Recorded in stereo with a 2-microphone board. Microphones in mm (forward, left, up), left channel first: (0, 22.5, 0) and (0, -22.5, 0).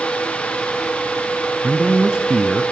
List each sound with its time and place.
1.6 s a man speaking: 15° right (ahead or behind), 1.2 m